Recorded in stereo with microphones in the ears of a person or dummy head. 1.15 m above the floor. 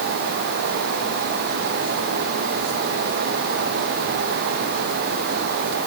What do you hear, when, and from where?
Only background noise.